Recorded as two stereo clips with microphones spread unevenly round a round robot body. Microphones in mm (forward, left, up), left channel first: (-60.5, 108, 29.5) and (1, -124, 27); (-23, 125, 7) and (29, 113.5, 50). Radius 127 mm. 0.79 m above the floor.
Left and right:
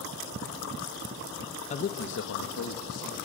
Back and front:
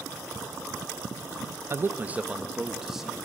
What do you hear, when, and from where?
1.7 s a man speaking: 80° left, 0.5 m; by 3.2 s 90° left, 1.3 m